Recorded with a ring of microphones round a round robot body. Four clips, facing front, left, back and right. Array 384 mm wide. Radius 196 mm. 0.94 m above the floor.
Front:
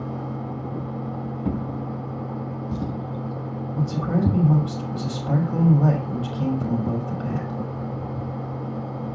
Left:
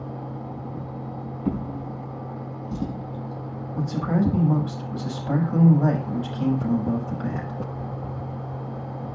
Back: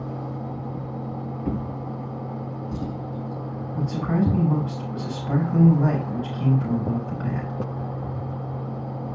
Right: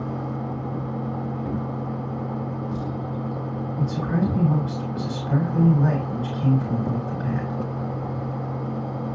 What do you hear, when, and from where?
1.4 s a drawer: 25° left, 3.5 m
3.7 s a man speaking: 30° left, 5 m